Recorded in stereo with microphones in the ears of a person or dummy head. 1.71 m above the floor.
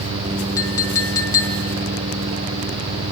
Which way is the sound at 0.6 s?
15° left (ahead or behind).